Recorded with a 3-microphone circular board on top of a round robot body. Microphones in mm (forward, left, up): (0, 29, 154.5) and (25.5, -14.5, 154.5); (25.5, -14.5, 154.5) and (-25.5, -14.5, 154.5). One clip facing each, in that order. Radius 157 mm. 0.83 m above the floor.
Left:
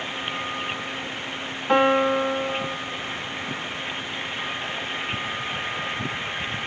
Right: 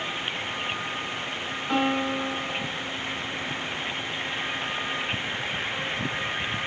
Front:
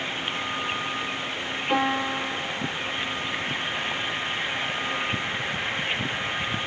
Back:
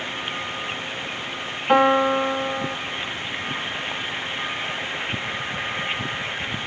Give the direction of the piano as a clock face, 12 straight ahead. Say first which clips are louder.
Left 7 dB, back 8 dB; 7 o'clock.